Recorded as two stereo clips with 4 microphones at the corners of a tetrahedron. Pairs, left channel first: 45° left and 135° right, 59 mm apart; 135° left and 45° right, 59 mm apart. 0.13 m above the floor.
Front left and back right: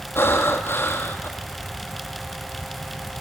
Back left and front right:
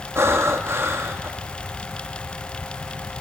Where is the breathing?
5° right, 1.6 m.